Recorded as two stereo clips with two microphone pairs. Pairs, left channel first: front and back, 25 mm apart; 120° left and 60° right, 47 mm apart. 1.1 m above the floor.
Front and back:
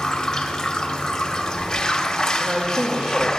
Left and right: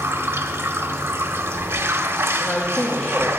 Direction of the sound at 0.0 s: 65° right.